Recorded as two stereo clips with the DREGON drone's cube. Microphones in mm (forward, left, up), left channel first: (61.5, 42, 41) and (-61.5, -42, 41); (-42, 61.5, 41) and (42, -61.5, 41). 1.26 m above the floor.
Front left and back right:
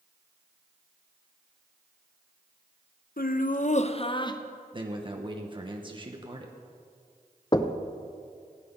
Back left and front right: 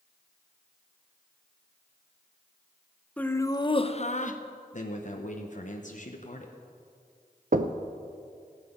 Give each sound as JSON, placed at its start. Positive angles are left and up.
{"t": 3.2, "sound": "laughter", "azimuth_deg": 45, "distance_m": 0.7}
{"t": 4.7, "sound": "a man speaking", "azimuth_deg": 160, "distance_m": 1.0}
{"t": 7.5, "sound": "knocking", "azimuth_deg": -30, "distance_m": 0.6}